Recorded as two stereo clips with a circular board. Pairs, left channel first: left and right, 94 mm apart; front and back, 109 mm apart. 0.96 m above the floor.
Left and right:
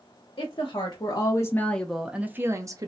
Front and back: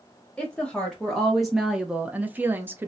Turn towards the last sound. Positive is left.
turn(degrees=-115)